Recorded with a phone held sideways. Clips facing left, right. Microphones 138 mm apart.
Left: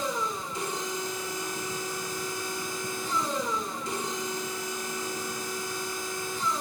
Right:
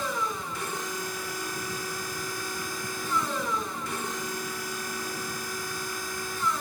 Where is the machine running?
20° left (ahead or behind), 3 m.